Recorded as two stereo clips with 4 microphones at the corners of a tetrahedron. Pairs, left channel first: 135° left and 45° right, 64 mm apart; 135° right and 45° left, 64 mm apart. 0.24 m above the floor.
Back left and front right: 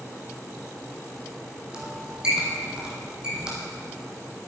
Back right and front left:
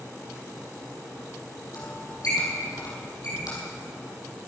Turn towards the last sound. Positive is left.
turn(degrees=-120)